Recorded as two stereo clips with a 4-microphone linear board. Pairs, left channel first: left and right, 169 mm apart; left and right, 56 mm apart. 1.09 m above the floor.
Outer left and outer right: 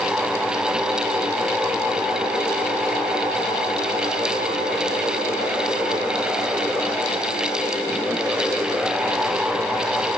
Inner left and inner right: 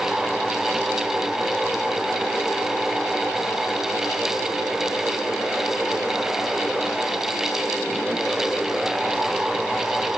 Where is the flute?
No flute in this recording.